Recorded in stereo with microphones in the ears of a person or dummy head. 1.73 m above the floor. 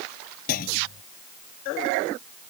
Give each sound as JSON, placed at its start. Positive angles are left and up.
{"t": 0.5, "sound": "a clunk", "side_deg": 45}